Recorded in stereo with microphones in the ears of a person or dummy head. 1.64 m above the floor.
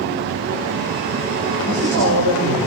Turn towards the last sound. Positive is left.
turn(degrees=-85)